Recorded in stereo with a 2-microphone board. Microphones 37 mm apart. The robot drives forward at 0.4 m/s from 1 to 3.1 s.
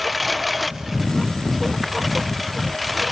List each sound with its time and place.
0.0 s a lawn mower: 5° right (ahead or behind)